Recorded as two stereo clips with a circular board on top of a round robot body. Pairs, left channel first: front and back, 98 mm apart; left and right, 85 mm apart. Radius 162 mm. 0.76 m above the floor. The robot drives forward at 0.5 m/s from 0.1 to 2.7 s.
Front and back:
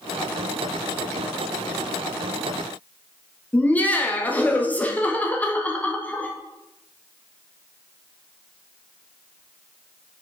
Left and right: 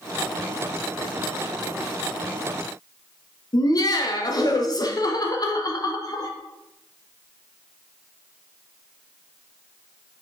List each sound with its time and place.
3.5 s laughter: 70° left, 1.3 m